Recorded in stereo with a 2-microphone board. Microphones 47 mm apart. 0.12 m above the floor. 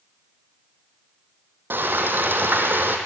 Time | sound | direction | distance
1.7 | frying | 45° right (ahead or behind) | 2.5 m